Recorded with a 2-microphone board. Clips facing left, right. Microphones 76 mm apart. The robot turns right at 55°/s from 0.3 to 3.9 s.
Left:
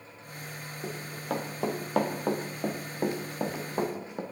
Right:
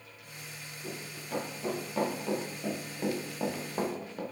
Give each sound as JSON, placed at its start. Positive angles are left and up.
{"t": 0.8, "sound": "running footsteps", "side_deg": 75, "distance_m": 3.0}